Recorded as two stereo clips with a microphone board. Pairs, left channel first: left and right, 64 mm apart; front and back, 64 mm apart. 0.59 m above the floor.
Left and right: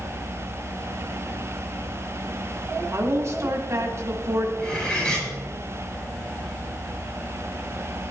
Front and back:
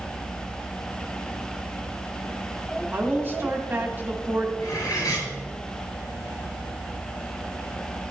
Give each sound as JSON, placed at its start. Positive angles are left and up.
{"t": 2.9, "sound": "a woman speaking", "azimuth_deg": -125, "distance_m": 2.0}
{"t": 4.6, "sound": "cutlery clinking", "azimuth_deg": 20, "distance_m": 7.0}